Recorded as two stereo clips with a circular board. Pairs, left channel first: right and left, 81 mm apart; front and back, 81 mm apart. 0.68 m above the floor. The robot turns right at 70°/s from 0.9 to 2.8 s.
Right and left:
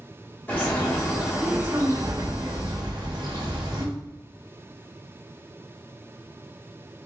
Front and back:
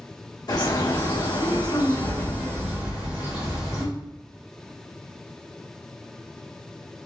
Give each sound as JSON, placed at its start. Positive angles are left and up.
{"t": 0.5, "sound": "a bird", "azimuth_deg": -25, "distance_m": 1.3}